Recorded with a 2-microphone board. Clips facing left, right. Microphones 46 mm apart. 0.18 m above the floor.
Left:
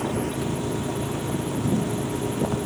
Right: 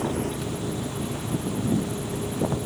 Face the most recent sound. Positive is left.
turn(degrees=75)  # may be behind; listen again after turning